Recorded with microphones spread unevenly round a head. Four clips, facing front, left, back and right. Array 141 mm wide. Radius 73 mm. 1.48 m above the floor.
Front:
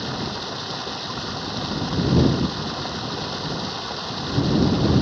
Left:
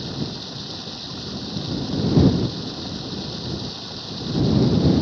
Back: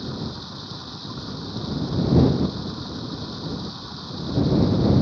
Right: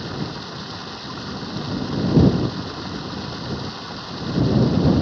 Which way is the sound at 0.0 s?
5° right.